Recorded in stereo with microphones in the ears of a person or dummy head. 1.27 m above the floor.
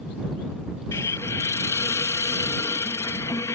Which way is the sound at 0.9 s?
15° left (ahead or behind).